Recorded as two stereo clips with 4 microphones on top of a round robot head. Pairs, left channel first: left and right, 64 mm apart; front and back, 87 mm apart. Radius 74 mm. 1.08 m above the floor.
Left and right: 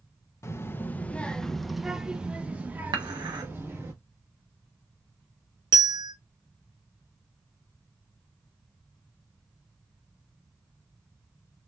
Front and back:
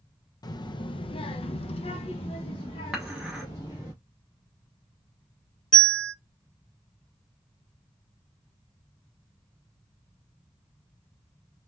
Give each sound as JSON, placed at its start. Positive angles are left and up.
{"t": 0.4, "sound": "a child speaking", "azimuth_deg": 45, "distance_m": 1.0}
{"t": 2.9, "sound": "dishes clattering", "azimuth_deg": -95, "distance_m": 1.3}
{"t": 5.7, "sound": "a bell", "azimuth_deg": -80, "distance_m": 1.0}